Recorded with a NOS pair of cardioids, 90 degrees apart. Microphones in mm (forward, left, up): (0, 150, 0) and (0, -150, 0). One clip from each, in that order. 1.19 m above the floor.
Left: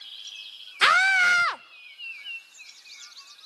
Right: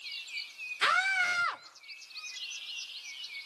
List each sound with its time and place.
0.8 s a scream: 50° left, 1.1 m